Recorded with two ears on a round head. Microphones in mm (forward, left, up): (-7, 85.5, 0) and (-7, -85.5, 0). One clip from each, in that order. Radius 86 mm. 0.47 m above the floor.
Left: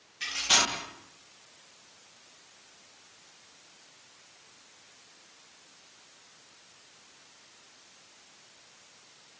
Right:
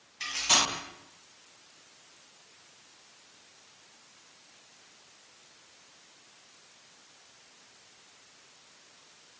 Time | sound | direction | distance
0.2 | cutlery clinking | 40° right (ahead or behind) | 1.7 m